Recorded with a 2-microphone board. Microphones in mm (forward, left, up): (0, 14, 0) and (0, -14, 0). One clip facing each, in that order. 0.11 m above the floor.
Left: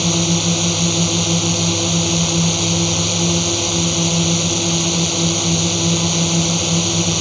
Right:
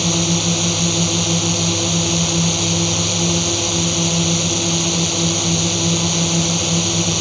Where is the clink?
No clink in this recording.